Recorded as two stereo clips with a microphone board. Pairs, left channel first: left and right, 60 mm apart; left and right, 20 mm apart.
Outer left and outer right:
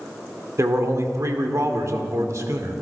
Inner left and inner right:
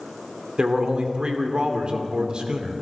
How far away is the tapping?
No tapping in this recording.